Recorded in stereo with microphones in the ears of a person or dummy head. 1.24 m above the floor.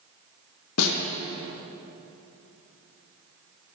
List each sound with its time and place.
0.8 s a snare drum: 85° left, 1.5 m